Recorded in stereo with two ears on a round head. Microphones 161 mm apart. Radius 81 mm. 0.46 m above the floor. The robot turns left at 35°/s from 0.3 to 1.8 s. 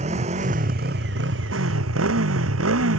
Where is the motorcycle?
40° right (ahead or behind); by 3.0 s 85° right.